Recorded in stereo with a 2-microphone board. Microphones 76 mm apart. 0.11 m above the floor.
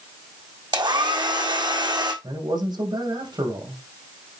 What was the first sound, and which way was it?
A hair dryer, 80° right.